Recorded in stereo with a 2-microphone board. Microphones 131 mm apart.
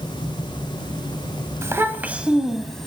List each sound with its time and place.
1.6 s a child speaking: 20° right (ahead or behind), 0.8 m; by 2.9 s 5° left (ahead or behind), 1.0 m